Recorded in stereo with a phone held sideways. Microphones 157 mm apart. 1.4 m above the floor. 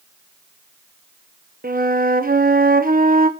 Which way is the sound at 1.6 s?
60° right (ahead or behind).